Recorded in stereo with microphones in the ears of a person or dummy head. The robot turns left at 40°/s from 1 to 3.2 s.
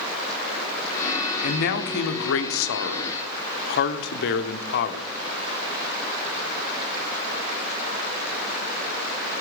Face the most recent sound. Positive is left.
turn(degrees=60)